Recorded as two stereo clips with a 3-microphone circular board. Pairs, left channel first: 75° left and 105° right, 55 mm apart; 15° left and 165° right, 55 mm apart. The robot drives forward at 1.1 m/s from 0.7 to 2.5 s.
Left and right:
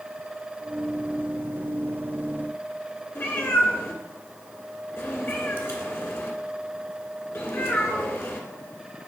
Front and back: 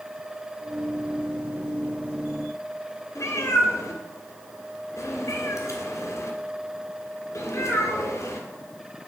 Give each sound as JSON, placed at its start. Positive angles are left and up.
{"t": 3.1, "sound": "a cat meowing", "azimuth_deg": 30, "distance_m": 1.6}